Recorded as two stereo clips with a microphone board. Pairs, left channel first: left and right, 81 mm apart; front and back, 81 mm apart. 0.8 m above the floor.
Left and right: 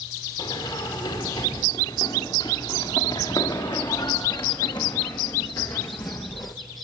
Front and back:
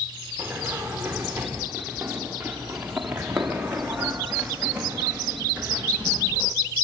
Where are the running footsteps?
100° left, 6 m; by 6.5 s 110° left, 1.3 m.